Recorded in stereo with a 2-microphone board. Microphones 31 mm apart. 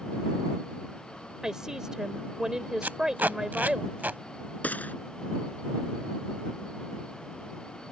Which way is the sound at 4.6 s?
55° left (ahead or behind).